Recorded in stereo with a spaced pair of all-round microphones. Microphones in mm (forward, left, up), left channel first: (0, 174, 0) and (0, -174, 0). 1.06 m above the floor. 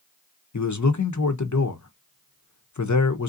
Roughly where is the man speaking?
Left.